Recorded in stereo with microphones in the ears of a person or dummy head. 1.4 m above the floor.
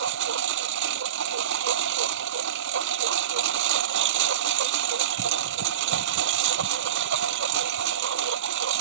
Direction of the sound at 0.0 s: 75° right (ahead or behind).